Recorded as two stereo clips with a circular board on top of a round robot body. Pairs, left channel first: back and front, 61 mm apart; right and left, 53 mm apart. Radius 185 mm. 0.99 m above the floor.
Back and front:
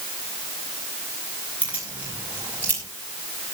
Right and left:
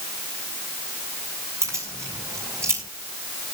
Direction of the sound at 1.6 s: 65° left.